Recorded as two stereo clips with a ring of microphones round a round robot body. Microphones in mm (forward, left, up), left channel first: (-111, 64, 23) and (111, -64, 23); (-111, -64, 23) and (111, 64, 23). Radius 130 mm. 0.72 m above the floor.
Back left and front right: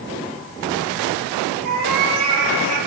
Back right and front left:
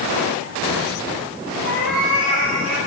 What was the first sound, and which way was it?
A cat meowing, straight ahead.